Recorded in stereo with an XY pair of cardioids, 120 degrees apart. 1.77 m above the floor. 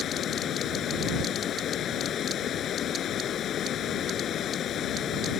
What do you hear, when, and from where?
0.0 s running water: 55° left